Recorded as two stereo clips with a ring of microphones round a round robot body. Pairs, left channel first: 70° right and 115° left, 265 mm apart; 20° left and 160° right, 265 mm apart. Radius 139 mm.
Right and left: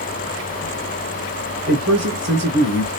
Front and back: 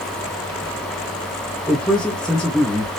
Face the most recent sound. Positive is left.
turn(degrees=110)